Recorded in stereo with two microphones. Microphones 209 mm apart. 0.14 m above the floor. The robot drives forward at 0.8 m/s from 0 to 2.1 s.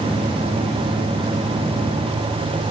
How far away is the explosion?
I don't hear an explosion.